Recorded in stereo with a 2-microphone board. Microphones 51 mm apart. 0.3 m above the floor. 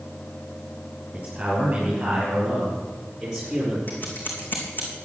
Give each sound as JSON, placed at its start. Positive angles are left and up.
{"t": 1.1, "sound": "a man speaking", "side_deg": -25, "distance_m": 6.0}
{"t": 3.9, "sound": "scissors", "side_deg": 40, "distance_m": 3.0}